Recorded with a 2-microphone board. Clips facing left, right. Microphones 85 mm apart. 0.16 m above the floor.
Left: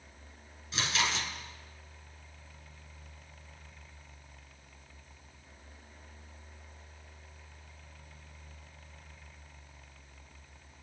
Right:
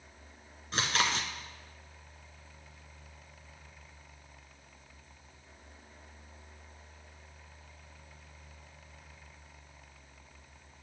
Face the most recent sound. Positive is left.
turn(degrees=-50)  # may be behind; listen again after turning